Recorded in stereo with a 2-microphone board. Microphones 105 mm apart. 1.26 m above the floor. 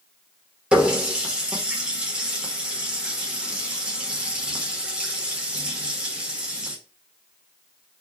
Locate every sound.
0.7 s a running tap: 10° right (ahead or behind), 1.2 m